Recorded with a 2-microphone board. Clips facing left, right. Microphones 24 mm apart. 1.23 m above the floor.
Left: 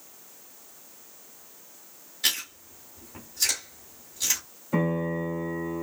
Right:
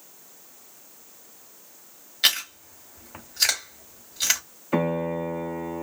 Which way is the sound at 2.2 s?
70° right (ahead or behind).